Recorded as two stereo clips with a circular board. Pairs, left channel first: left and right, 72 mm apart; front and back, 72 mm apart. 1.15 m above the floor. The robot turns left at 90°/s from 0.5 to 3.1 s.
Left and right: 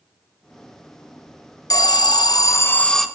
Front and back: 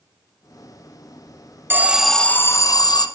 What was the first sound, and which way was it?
An alarm, 120° left.